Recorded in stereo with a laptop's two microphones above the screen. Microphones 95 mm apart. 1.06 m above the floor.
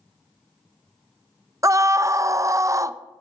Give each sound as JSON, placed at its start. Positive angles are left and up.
{"t": 1.6, "sound": "a scream", "side_deg": -35, "distance_m": 0.5}